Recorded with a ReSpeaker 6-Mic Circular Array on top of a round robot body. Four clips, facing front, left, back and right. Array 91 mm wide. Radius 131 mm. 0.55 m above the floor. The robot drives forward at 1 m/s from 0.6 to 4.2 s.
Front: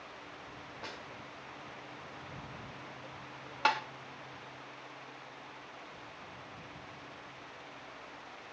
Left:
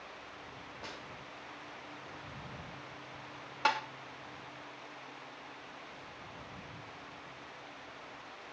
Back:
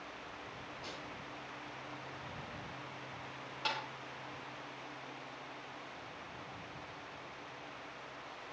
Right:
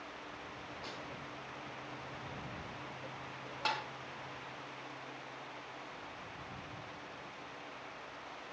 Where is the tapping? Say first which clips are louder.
Left 6 dB, front 9 dB; 20° left, 1.8 m.